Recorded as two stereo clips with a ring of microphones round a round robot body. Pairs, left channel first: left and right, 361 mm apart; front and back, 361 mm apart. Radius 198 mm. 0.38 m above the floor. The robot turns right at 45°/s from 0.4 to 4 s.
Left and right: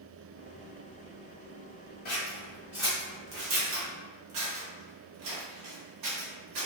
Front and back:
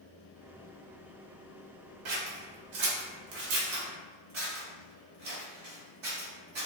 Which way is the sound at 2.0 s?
155° left.